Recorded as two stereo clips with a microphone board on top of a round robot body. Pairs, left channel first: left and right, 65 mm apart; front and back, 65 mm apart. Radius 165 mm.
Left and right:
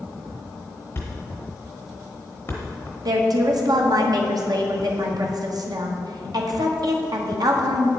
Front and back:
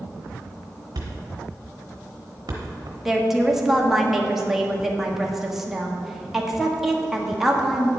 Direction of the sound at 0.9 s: 150° left.